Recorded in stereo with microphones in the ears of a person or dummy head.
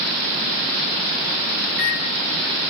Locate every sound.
1.7 s a microwave: 5° left (ahead or behind), 1.7 m